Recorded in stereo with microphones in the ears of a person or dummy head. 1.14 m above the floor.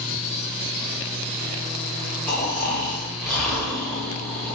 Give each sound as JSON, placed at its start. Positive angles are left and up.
{"t": 2.3, "sound": "snoring", "side_deg": 10, "distance_m": 1.8}